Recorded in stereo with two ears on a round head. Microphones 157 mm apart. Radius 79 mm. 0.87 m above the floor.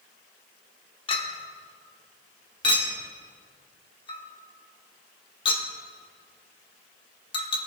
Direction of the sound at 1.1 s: 30° left (ahead or behind).